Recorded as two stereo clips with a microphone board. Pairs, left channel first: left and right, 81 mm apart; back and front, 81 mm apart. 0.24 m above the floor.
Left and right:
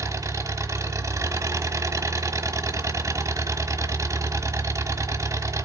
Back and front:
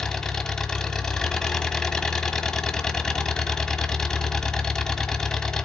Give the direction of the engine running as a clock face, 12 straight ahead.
3 o'clock.